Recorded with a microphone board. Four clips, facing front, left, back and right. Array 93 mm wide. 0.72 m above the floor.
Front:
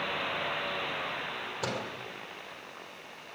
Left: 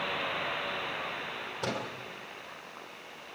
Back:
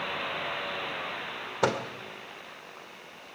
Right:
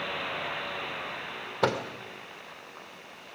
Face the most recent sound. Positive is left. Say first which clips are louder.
# right 8 dB, back 9 dB
turn(degrees=-135)